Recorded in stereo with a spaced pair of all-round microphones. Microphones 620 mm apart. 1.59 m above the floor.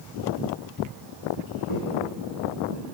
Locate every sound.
1.7 s footsteps: 50° left (ahead or behind), 5 m; by 2.8 s 60° left (ahead or behind), 5 m